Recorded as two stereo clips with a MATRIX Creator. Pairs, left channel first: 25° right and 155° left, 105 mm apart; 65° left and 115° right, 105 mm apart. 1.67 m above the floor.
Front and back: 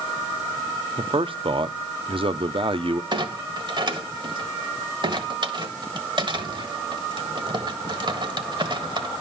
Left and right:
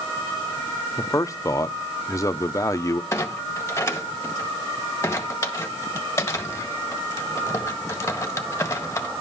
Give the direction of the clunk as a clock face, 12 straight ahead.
8 o'clock.